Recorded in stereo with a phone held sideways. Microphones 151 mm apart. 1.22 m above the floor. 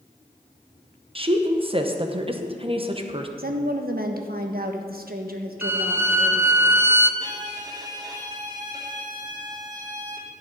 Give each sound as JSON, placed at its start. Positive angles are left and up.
{"t": 1.1, "sound": "a woman speaking", "side_deg": -35, "distance_m": 1.0}
{"t": 3.4, "sound": "a woman speaking", "side_deg": -80, "distance_m": 1.2}
{"t": 5.6, "sound": "a violin", "side_deg": -15, "distance_m": 0.6}
{"t": 7.2, "sound": "a violin", "side_deg": -25, "distance_m": 1.3}